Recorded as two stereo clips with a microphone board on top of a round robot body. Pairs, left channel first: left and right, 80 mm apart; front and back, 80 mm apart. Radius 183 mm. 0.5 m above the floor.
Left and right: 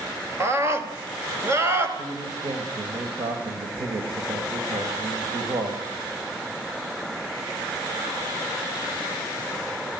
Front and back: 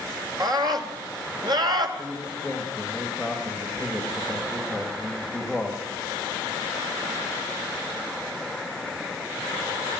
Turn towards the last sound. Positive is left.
turn(degrees=-95)